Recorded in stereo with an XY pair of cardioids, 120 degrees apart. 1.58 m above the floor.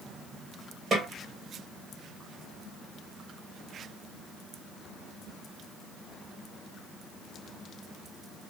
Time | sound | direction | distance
0.9 | a snare drum | 40° right | 2 m